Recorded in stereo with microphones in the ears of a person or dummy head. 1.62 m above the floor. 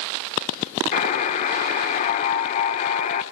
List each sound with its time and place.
0.9 s a buzzer: 40° left (ahead or behind), 1.4 m